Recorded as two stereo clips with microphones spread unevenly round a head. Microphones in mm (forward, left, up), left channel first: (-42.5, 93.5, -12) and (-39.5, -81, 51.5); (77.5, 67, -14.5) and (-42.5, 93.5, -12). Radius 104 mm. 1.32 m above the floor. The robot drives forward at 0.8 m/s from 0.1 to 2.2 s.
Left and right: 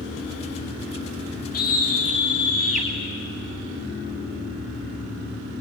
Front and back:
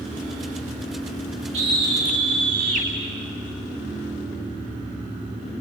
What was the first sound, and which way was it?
A scream, 130° left.